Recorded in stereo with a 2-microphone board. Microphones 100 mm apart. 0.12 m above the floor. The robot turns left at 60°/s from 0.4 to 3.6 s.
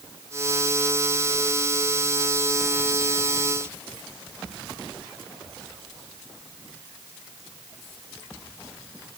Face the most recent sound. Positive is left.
No sound to turn to.